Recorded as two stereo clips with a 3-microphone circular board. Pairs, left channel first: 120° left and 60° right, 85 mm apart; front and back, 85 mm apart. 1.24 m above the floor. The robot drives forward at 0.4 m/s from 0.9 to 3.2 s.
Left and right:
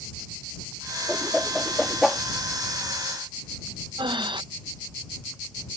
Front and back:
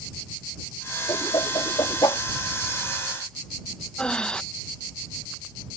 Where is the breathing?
80° right.